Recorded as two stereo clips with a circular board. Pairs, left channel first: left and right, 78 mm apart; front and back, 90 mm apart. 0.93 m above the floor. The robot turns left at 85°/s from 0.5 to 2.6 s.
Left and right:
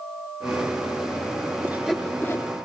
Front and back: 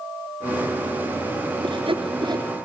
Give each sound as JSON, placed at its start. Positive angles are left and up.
{"t": 1.6, "sound": "sawing", "azimuth_deg": -150, "distance_m": 3.0}